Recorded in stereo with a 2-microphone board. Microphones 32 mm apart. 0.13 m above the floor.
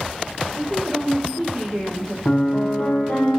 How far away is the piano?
About 5 m.